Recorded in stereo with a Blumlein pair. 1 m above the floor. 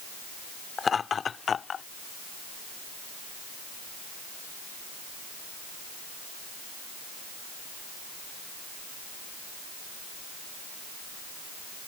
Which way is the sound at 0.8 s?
15° left.